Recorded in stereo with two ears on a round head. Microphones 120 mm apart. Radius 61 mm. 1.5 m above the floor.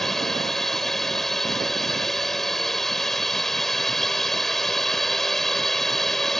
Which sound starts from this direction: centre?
A drone, at 0.0 s.